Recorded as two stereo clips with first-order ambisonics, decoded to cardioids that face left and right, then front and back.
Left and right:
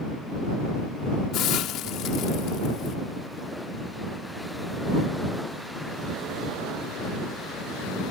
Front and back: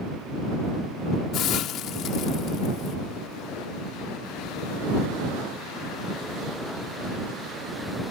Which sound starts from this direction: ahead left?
A hiss, at 1.3 s.